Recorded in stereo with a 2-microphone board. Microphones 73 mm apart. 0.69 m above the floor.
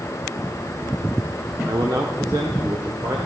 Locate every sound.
1.7 s a man speaking: 55° right (ahead or behind), 1.3 m; by 3.2 s 60° right (ahead or behind), 2.5 m